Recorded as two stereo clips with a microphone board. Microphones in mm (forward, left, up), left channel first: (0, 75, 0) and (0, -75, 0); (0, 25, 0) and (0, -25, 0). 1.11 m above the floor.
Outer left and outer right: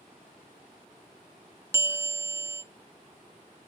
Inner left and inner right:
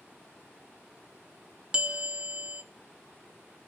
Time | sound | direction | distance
1.7 | a bell | 15° right (ahead or behind) | 0.7 m